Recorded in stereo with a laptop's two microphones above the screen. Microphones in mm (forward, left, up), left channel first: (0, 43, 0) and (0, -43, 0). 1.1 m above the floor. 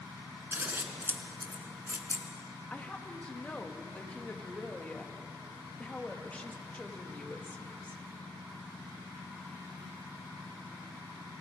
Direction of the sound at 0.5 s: 25° right (ahead or behind).